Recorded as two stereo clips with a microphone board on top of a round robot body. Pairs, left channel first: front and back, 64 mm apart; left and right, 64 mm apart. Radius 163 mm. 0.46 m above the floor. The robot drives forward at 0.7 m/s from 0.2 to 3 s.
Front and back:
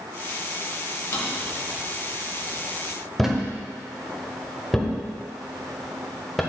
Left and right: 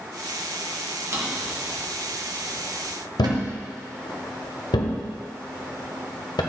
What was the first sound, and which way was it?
A drawer, 40° right.